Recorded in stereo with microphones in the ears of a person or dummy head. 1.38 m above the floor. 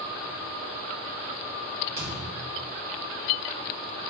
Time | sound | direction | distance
2.0 | a thud | 55° right (ahead or behind) | 1.8 m